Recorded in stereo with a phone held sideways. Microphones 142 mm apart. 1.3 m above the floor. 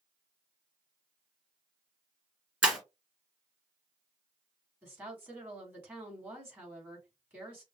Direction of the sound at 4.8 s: 15° right (ahead or behind).